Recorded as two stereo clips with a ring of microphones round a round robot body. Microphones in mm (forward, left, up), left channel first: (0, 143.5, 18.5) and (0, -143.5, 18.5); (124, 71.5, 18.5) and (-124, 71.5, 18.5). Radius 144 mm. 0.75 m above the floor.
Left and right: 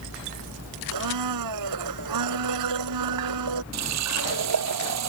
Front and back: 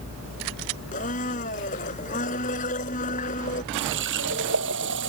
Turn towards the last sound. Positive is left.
turn(degrees=-125)